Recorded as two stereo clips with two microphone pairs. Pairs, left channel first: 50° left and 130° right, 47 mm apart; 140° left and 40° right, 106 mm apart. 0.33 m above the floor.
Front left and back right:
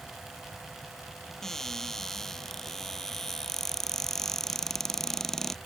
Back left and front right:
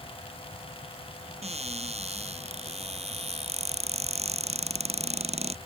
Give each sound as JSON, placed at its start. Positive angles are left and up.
{"t": 1.4, "sound": "a cupboard door", "azimuth_deg": -30}